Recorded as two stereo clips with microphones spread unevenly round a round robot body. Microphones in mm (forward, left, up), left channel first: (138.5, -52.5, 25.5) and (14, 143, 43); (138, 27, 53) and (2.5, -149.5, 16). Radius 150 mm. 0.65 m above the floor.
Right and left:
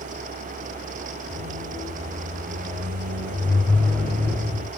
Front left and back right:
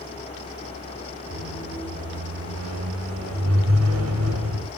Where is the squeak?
145° right, 2.5 m.